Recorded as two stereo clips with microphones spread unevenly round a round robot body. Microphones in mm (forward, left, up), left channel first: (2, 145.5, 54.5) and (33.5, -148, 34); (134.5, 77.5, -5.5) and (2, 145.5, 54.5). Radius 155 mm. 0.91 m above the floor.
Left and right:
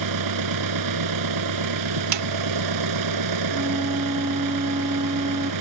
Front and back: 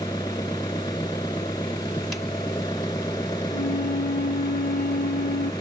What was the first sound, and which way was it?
An engine running, 110° right.